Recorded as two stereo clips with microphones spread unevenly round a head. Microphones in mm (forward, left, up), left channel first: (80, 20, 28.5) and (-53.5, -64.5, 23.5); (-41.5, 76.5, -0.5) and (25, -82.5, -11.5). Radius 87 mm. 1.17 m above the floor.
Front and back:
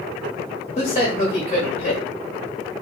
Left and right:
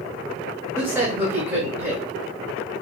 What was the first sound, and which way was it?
A man speaking, 5° left.